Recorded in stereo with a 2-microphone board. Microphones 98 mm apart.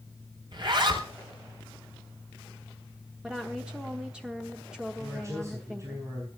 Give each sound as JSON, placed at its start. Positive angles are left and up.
{"t": 0.5, "sound": "a zipper", "side_deg": -50, "distance_m": 2.0}
{"t": 3.2, "sound": "a woman speaking", "side_deg": -10, "distance_m": 1.0}
{"t": 5.0, "sound": "a man speaking", "side_deg": -30, "distance_m": 5.0}